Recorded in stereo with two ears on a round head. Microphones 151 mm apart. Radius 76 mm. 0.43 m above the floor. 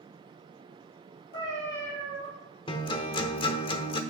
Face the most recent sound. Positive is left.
turn(degrees=30)  # may be behind; listen again after turning